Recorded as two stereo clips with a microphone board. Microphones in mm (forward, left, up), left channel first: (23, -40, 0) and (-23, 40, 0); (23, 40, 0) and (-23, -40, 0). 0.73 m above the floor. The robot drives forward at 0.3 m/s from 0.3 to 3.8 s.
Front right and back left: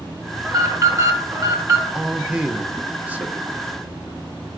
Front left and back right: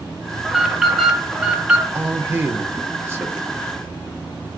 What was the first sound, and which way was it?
An alarm, 155° left.